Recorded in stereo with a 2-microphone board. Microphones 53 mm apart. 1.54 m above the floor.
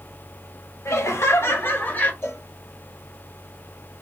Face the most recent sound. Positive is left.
turn(degrees=60)  # may be behind; listen again after turning